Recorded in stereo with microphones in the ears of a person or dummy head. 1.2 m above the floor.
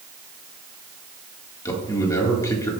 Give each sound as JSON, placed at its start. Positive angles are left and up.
{"t": 1.6, "sound": "a man speaking", "side_deg": 15, "distance_m": 2.0}